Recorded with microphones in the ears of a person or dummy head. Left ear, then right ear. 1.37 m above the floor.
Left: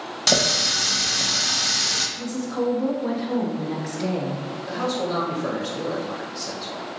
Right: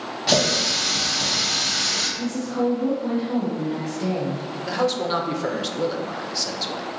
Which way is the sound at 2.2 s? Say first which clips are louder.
Right 2 dB; 10° left (ahead or behind).